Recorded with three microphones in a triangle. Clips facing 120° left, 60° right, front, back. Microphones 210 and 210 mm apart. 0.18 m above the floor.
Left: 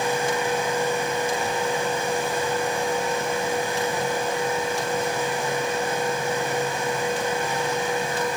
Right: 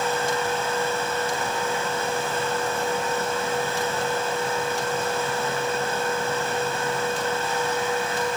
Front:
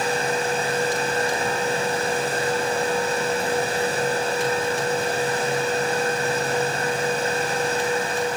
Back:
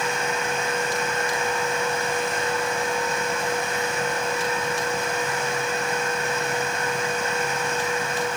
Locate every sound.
Only background noise.